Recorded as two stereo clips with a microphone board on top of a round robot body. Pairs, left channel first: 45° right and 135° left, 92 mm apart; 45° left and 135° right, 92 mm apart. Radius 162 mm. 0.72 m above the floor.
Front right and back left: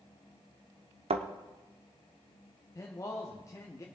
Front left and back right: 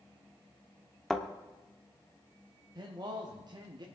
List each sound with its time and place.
1.1 s a thud: 130° left, 0.8 m
2.8 s a man speaking: 100° right, 1.4 m